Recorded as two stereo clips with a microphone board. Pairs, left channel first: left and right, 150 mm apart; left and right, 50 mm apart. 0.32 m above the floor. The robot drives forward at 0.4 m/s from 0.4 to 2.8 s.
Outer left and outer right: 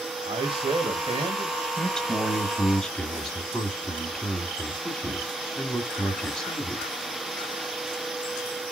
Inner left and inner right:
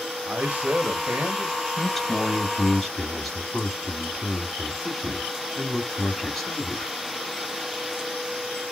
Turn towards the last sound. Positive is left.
turn(degrees=5)  # may be behind; listen again after turning